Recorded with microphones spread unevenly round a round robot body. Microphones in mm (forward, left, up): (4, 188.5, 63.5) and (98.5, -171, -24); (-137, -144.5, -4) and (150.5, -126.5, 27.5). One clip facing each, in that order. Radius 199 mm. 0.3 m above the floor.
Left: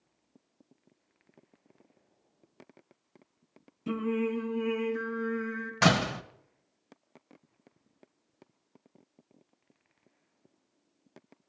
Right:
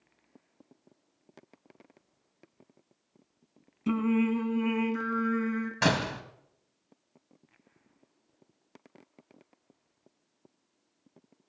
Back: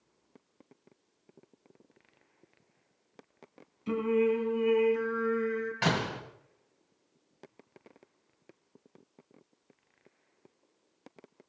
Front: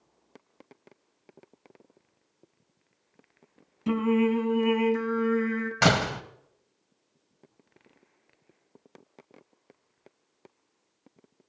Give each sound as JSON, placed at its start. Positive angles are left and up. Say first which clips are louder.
{"t": 3.9, "sound": "singing", "louder": "right 4 dB, front 3 dB", "azimuth_deg": -10, "distance_m": 2.5}
{"t": 5.8, "sound": "a door slam", "louder": "left 5 dB, front 6 dB", "azimuth_deg": 30, "distance_m": 1.2}